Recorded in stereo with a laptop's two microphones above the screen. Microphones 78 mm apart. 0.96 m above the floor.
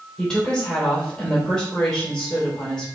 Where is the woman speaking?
10° left (ahead or behind), 3.5 m.